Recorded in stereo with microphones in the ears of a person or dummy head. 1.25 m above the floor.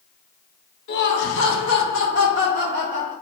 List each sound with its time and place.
0.9 s laughter: 60° left (ahead or behind), 0.9 m; by 3.1 s 35° left (ahead or behind), 1.3 m